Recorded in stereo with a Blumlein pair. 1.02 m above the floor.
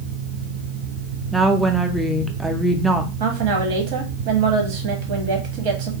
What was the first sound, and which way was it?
A fan, 55° right.